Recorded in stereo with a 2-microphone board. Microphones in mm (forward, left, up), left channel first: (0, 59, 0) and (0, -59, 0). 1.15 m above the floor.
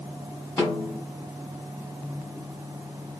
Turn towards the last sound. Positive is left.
turn(degrees=25)  # may be behind; listen again after turning